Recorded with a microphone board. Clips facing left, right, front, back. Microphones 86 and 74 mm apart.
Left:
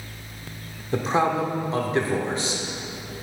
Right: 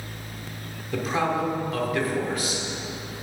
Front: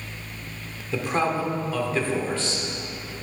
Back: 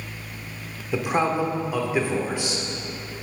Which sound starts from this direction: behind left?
A man speaking, at 0.9 s.